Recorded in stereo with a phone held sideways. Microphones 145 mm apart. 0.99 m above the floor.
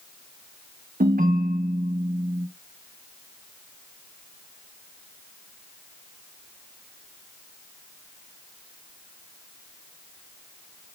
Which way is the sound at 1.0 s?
80° right.